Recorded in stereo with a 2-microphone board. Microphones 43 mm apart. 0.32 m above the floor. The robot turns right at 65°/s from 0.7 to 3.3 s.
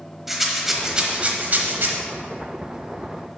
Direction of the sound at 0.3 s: 175° right.